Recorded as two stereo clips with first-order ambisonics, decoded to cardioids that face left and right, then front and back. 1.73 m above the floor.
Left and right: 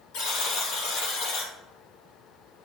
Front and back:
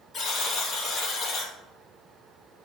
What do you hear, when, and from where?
0.1 s a buzzer: 70° left, 2 m